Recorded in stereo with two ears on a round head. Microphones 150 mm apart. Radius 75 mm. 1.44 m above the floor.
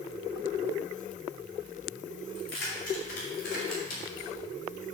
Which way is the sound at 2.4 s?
70° left (ahead or behind).